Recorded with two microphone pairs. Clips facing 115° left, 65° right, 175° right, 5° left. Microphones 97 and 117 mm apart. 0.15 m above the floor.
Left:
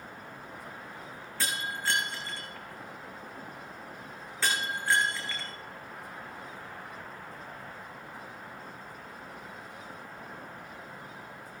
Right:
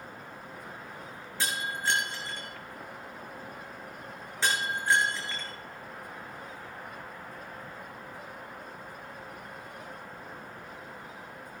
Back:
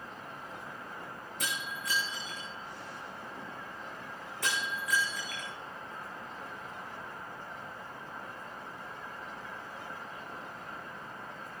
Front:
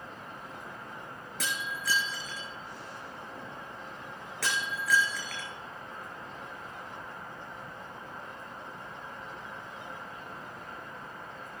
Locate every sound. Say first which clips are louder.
1.4 s breaking glass: right 2 dB, front 3 dB; 5° left, 4.5 m